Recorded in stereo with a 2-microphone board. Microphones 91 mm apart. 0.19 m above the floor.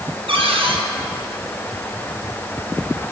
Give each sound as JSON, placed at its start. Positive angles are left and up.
{"t": 0.3, "sound": "a cupboard door", "side_deg": -75, "distance_m": 5.0}